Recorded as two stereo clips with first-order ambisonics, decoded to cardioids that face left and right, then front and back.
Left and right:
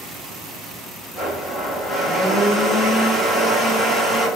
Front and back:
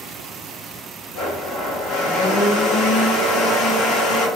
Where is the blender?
Straight ahead, 1.2 m.